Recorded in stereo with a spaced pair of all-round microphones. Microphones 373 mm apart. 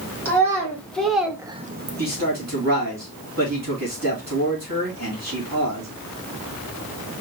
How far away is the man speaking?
About 2.5 m.